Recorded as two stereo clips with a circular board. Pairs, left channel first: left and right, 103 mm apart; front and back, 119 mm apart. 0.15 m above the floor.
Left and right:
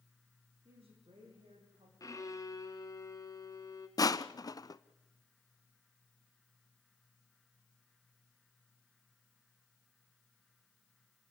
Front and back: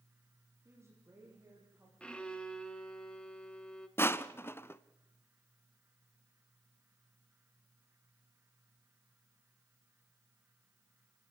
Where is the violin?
75° left, 1.7 m.